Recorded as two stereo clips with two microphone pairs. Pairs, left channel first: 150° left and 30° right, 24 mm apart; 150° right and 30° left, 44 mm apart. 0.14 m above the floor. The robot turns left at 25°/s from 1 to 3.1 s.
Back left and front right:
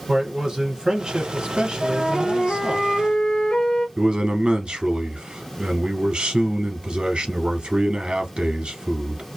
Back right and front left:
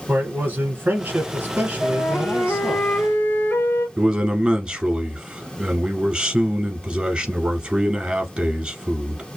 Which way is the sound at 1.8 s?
145° right.